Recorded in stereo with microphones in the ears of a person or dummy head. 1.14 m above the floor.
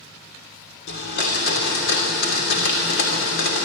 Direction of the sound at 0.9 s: 60° left (ahead or behind).